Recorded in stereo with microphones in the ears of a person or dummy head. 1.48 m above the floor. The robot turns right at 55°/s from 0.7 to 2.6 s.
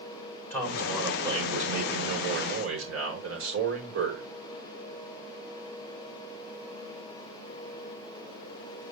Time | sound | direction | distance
0.5 | a man speaking | 165° left | 5 m